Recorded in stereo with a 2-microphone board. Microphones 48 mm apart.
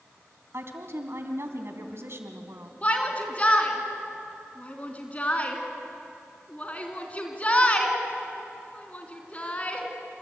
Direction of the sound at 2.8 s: 30° left (ahead or behind).